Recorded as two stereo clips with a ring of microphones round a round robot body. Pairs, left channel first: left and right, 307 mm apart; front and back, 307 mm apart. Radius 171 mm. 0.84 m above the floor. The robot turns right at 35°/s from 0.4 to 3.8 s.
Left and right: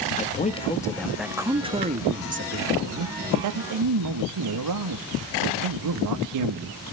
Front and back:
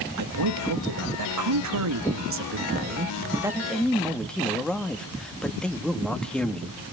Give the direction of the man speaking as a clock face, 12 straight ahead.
7 o'clock.